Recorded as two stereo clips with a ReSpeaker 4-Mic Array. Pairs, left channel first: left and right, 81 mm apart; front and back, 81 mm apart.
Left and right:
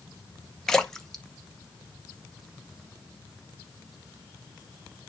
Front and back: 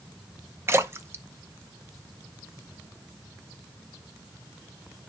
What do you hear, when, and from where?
0.7 s a splash: 165° left, 0.7 m